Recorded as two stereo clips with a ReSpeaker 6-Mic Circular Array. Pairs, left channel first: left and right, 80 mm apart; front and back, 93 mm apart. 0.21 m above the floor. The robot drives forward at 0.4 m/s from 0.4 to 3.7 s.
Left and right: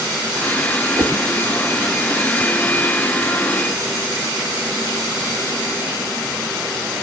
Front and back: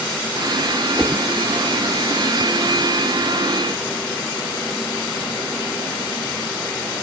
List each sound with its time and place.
1.0 s a whoosh: 95° right, 0.7 m; by 1.2 s 115° right, 0.8 m